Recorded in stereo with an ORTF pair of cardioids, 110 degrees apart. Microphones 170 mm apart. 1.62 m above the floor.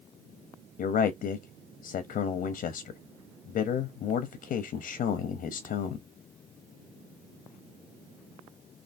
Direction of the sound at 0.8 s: 55° left.